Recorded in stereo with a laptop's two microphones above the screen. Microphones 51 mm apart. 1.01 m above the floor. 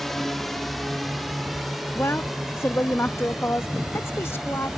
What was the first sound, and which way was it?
A drone, 5° left (ahead or behind).